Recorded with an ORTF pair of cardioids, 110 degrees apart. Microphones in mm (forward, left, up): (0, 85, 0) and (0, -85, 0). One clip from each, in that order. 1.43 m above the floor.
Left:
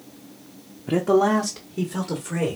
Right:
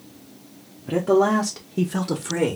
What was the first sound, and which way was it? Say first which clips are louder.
A man speaking: even; 15° left.